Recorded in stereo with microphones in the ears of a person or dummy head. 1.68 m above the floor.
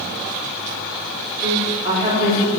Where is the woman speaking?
20° right (ahead or behind), 4 m.